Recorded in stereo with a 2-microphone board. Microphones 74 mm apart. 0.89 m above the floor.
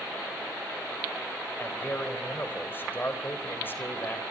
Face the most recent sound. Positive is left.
turn(degrees=30)  # may be behind; listen again after turning